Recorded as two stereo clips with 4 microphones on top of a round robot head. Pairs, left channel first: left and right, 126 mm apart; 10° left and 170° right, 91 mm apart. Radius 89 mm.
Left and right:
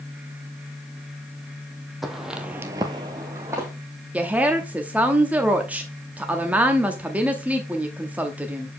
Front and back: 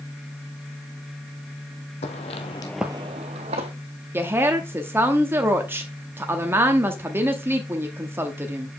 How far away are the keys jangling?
I don't hear keys jangling.